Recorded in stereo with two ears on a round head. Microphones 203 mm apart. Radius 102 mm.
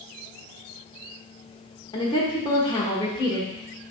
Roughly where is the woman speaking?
Centre.